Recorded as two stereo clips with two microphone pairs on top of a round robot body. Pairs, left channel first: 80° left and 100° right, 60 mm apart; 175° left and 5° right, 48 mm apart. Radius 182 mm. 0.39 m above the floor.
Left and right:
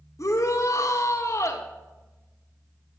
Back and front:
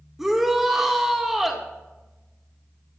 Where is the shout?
80° left, 2 m.